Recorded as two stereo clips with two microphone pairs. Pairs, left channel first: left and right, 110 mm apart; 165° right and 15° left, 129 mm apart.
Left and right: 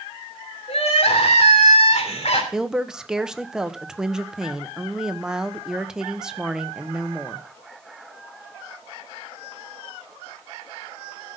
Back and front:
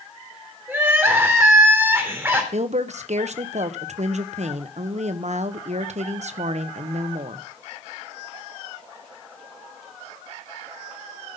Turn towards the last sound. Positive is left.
turn(degrees=-10)